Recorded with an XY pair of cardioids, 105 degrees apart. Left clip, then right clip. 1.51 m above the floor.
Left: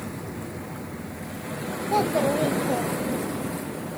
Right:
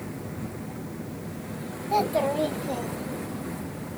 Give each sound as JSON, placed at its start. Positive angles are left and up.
{"t": 1.9, "sound": "a child speaking", "azimuth_deg": -5, "distance_m": 1.1}